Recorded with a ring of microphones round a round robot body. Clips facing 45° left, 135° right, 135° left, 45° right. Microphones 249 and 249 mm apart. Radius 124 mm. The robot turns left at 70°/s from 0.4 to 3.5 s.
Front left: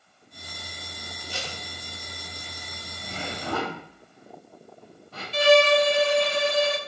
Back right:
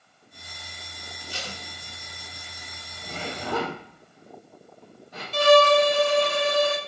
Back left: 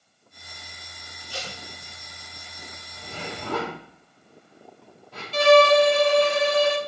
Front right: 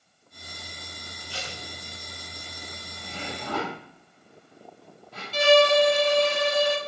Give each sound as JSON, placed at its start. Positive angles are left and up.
{"t": 1.3, "sound": "tape being pulled", "azimuth_deg": 85, "distance_m": 2.5}
{"t": 3.0, "sound": "a zipper", "azimuth_deg": -170, "distance_m": 4.0}
{"t": 5.3, "sound": "a violin", "azimuth_deg": 175, "distance_m": 1.0}